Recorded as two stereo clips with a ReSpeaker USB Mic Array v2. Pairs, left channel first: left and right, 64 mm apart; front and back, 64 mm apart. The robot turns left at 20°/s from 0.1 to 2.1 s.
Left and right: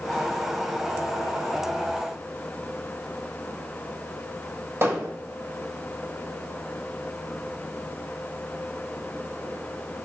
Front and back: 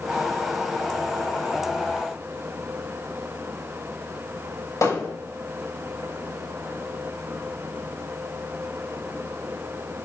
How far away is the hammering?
About 7 m.